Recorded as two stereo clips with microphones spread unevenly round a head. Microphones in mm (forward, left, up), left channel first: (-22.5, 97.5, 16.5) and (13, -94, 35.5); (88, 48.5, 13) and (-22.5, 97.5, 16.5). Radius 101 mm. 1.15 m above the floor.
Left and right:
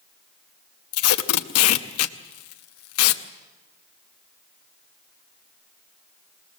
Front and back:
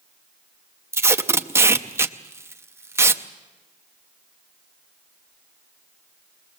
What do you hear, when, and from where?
0.9 s tape being pulled: 90° left, 0.8 m